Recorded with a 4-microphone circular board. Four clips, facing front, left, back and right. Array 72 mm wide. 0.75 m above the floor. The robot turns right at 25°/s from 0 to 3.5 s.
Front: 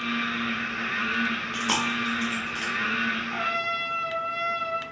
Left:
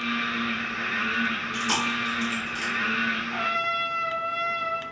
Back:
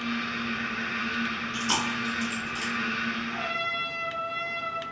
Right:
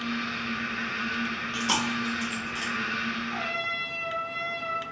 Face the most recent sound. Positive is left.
turn(degrees=45)